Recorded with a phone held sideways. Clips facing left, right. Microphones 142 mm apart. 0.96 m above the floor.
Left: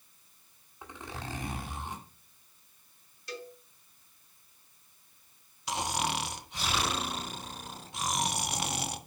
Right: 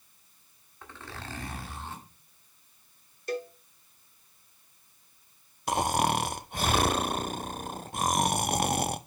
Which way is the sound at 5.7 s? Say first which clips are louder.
Right 7 dB; 50° right (ahead or behind).